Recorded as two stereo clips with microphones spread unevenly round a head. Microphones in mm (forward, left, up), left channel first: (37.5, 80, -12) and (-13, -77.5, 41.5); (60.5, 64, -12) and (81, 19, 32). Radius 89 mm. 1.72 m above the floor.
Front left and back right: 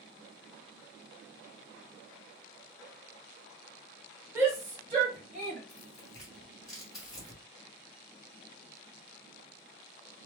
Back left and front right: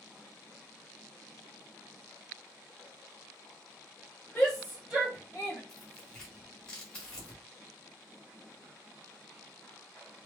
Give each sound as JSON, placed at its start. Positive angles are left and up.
{"t": 4.3, "sound": "a shout", "azimuth_deg": -105, "distance_m": 0.6}
{"t": 5.7, "sound": "tearing paper", "azimuth_deg": -55, "distance_m": 1.7}